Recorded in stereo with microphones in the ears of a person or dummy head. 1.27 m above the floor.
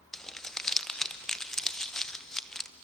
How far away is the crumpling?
About 0.7 m.